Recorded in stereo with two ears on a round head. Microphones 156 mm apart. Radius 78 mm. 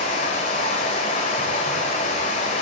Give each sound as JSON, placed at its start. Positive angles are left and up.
{"t": 0.0, "sound": "running water", "side_deg": 45, "distance_m": 2.5}